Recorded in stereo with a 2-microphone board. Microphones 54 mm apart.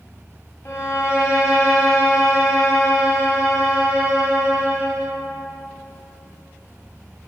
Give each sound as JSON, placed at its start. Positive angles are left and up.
{"t": 0.7, "sound": "a violin", "side_deg": 50, "distance_m": 1.4}